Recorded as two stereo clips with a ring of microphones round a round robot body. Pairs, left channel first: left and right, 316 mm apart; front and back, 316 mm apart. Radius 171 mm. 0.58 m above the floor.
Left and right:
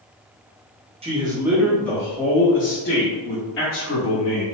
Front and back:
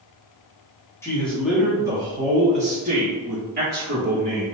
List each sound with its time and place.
1.0 s a man speaking: 65° right, 1.0 m; by 4.5 s 130° left, 1.8 m